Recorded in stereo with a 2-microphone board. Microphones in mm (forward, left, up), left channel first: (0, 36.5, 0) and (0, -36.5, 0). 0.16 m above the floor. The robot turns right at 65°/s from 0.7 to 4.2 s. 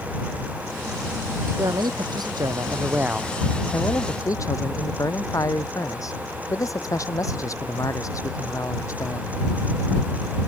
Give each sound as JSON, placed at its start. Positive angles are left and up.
{"t": 1.6, "sound": "a man speaking", "azimuth_deg": -120}